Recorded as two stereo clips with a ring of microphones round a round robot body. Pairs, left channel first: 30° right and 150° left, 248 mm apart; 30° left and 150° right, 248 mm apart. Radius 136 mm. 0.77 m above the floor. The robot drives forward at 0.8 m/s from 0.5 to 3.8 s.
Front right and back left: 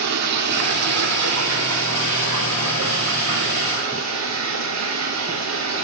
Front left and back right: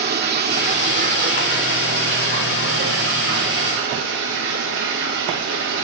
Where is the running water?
160° left, 2.5 m; by 5.8 s 170° left, 5 m.